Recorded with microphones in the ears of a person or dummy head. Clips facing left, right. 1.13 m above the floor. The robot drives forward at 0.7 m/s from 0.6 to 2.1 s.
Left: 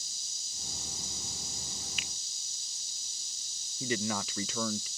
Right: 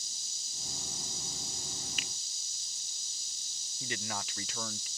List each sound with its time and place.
2.0 s a finger snap: 45° right (ahead or behind); by 2.1 s 50° right (ahead or behind)
3.8 s a man speaking: 75° left (ahead or behind)